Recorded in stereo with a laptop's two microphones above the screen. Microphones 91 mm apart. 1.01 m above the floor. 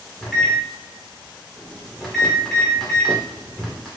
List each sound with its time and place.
0.2 s a microwave: 5° left (ahead or behind), 2 m